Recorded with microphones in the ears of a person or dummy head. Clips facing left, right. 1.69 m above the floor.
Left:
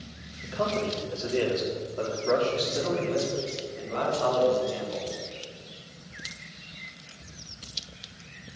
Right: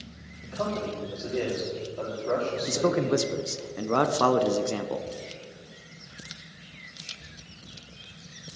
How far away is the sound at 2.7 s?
About 1.1 m.